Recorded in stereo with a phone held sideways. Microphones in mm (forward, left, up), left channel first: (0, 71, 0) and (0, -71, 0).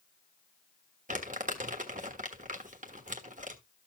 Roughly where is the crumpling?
Right.